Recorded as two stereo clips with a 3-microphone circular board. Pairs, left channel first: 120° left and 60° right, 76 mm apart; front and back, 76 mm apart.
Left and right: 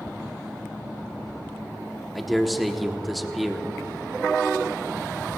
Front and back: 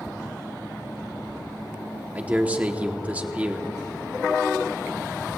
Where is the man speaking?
150° right, 1.0 m.